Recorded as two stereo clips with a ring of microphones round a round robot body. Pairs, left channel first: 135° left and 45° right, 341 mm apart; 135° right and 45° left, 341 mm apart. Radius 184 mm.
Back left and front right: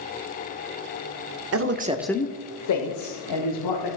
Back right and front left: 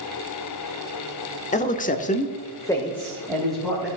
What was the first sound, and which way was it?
A man speaking, 75° right.